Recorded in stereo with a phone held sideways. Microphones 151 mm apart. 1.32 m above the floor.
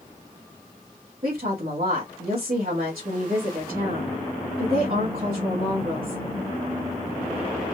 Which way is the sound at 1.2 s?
70° right (ahead or behind).